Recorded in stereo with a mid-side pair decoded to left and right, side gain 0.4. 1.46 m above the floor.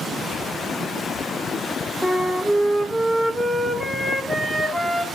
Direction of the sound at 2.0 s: 15° right.